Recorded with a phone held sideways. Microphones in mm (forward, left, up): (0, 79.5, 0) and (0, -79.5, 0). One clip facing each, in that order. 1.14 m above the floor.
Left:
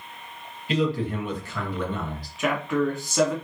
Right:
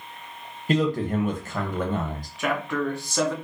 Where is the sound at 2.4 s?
Centre (ahead or behind), 1.6 m.